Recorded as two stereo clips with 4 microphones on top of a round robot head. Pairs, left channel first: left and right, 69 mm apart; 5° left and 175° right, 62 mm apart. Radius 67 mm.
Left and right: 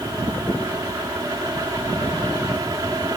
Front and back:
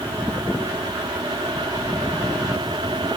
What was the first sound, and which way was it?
Only background noise.